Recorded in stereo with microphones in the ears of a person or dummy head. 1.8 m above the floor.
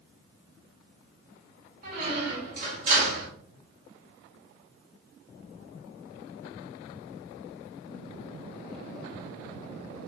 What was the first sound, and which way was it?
A squeak, 45° right (ahead or behind).